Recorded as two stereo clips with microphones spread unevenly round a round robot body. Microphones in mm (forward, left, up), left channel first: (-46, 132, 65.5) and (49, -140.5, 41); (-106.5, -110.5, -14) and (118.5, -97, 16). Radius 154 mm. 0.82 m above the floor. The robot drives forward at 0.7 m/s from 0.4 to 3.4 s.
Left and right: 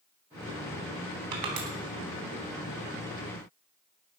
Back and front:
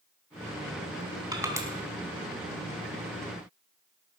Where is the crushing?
70° right, 3.5 m; by 1.7 s 75° right, 3.5 m.